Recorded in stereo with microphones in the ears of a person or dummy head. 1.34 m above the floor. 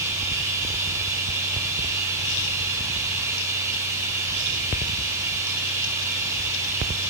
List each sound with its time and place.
0.0 s running water: 15° right (ahead or behind), 9 m